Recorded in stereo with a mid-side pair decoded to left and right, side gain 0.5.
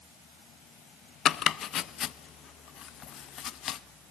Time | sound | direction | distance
1.2 | chopping | 60° left | 0.7 m